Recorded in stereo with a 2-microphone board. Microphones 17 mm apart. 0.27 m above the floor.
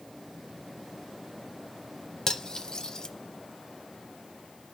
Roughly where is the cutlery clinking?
Left.